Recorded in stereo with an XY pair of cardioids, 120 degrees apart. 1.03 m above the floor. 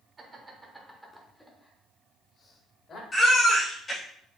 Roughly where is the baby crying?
Ahead left.